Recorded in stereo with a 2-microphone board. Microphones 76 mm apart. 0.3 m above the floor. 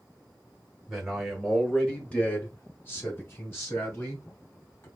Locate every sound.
0.9 s a man speaking: 5° right (ahead or behind), 1.4 m; by 4.9 s 35° left (ahead or behind), 3 m